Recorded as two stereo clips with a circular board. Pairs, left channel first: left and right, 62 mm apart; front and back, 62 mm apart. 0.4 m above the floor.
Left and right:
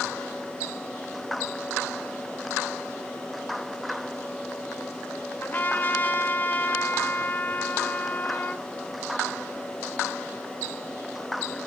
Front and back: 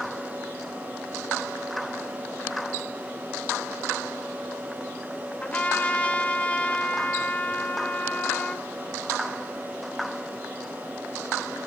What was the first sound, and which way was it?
A trumpet, 55° left.